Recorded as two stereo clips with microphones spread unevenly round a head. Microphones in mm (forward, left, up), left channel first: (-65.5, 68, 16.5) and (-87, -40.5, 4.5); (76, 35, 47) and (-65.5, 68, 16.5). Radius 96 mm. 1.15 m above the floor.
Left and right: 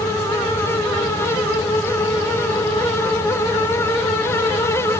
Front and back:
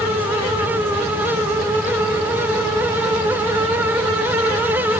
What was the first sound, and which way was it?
Only background noise.